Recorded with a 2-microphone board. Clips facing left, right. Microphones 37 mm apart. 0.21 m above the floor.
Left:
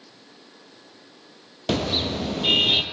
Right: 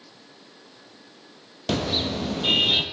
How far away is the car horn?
About 2.5 m.